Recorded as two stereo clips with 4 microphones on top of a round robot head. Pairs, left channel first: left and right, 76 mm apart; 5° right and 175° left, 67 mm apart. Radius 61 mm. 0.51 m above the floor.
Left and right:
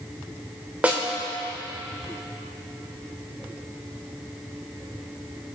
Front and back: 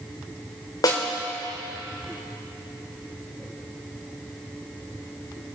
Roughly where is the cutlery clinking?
No cutlery clinking in this recording.